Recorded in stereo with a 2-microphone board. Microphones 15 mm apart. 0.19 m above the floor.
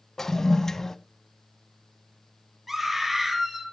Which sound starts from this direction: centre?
A scream, at 2.7 s.